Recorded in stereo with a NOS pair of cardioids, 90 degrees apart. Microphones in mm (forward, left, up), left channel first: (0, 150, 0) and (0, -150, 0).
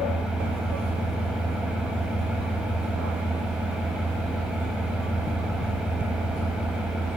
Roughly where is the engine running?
Ahead.